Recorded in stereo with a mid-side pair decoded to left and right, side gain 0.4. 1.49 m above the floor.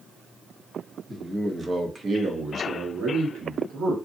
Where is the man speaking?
10° right, 1.3 m; by 4.0 s 75° right, 1.4 m.